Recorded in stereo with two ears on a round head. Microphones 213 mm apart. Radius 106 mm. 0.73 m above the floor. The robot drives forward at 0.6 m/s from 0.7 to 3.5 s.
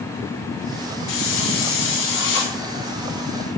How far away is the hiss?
About 4 m.